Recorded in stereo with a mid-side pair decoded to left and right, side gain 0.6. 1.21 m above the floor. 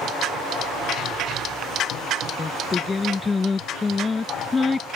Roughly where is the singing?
Ahead.